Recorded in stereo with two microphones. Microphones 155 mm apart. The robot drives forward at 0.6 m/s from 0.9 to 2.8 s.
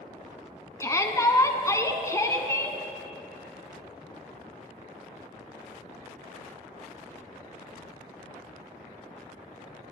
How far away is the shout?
About 1.1 m.